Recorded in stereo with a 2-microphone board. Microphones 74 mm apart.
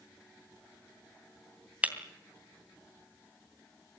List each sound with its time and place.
1.8 s breaking glass: 15° right (ahead or behind), 2.5 m